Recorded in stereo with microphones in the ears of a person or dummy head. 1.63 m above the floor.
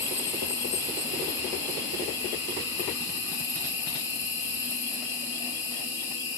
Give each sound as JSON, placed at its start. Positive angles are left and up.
{"t": 0.0, "sound": "an insect", "side_deg": 15, "distance_m": 0.8}